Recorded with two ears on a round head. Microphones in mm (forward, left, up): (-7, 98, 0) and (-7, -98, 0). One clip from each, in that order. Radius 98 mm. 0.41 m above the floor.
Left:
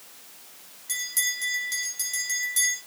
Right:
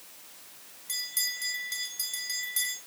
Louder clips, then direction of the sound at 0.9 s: Left 4 dB; 15° left (ahead or behind).